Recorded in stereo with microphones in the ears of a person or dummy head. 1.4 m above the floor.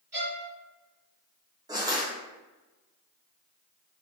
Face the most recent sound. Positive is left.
turn(degrees=-25)  # may be behind; listen again after turning